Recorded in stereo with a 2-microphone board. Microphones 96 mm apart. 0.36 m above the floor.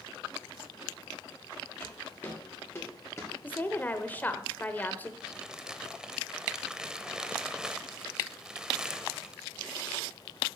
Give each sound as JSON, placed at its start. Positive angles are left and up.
{"t": 1.8, "sound": "footsteps", "side_deg": 20, "distance_m": 5.5}
{"t": 3.4, "sound": "a woman speaking", "side_deg": 20, "distance_m": 0.9}
{"t": 5.2, "sound": "crumpling", "side_deg": -5, "distance_m": 0.8}